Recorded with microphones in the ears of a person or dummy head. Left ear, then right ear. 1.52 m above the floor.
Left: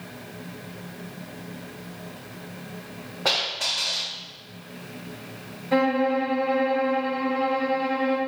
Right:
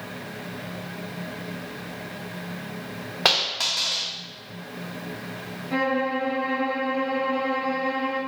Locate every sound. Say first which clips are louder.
3.2 s a dropped coin: right 2 dB; 55° right (ahead or behind), 1.5 m
5.7 s a violin: left 3 dB; 25° left (ahead or behind), 1.2 m